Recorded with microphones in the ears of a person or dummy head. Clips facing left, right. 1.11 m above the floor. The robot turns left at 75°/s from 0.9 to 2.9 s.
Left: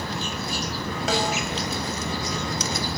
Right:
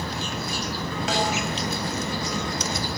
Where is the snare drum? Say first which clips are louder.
Left 1 dB; 80° left, 8 m.